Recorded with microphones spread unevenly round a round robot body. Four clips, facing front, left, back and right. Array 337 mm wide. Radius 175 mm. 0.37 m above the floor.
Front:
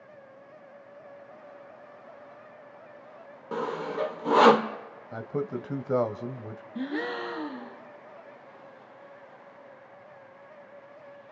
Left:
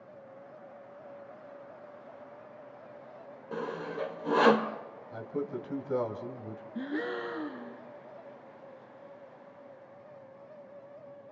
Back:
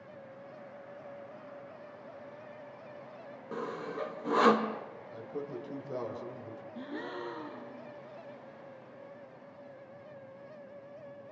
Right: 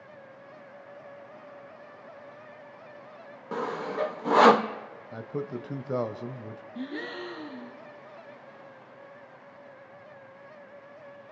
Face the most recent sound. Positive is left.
turn(degrees=20)